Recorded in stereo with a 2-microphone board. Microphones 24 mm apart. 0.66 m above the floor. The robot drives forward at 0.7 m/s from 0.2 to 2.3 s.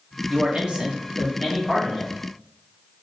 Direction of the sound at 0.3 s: 45° right (ahead or behind).